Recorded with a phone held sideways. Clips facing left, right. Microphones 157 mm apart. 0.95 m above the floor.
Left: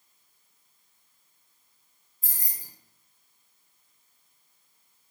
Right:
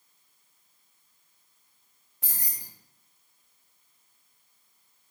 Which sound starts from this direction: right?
Keys jangling, at 2.2 s.